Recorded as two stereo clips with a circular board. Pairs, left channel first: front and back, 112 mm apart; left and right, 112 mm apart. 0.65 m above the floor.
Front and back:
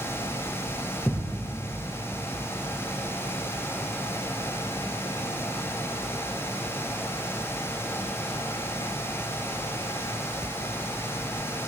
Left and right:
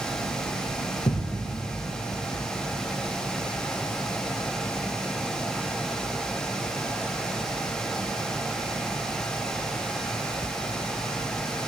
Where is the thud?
65° left, 4 m.